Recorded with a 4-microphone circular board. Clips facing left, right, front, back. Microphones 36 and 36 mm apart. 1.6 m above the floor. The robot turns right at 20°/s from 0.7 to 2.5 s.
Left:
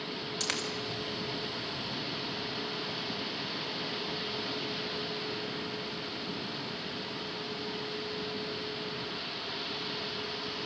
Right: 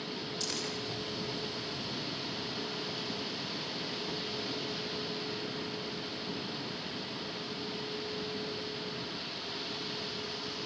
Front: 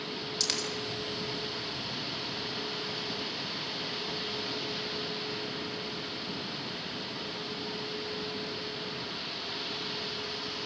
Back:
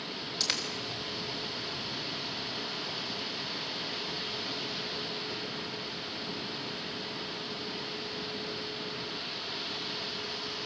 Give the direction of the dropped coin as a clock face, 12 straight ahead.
9 o'clock.